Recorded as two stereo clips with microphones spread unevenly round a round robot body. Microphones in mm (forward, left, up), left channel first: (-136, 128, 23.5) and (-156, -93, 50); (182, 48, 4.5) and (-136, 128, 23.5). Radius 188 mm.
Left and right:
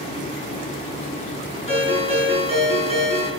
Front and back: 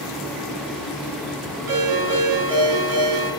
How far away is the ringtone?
About 6.5 m.